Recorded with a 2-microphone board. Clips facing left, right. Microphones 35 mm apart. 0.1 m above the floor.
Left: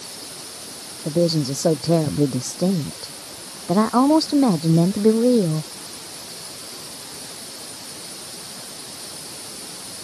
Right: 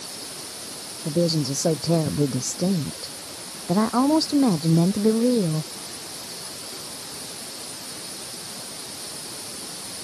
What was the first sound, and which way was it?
A woman speaking, 15° left (ahead or behind).